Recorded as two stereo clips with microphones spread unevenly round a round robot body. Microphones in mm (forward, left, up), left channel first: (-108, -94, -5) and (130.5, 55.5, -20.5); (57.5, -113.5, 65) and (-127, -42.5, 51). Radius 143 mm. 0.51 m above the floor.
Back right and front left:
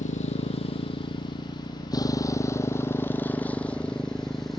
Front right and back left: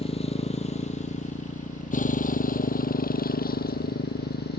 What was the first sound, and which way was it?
A motorcycle, 80° right.